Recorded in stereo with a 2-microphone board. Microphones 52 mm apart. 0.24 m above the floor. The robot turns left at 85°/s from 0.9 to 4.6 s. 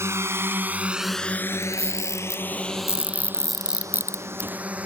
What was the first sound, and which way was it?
A drone, 60° right (ahead or behind).